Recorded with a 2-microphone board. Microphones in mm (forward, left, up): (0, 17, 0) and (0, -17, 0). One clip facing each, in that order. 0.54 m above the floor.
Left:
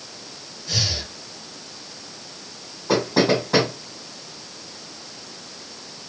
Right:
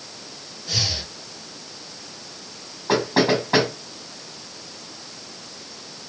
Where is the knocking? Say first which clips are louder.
Even; 25° right (ahead or behind), 7.5 m.